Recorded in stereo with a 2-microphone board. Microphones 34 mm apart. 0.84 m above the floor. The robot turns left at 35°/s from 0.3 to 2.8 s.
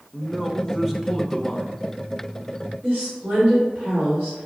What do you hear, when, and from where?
0.1 s a man speaking: 20° right (ahead or behind), 0.6 m; by 1.7 s 5° left (ahead or behind), 0.6 m
2.8 s a woman speaking: 65° right (ahead or behind), 2 m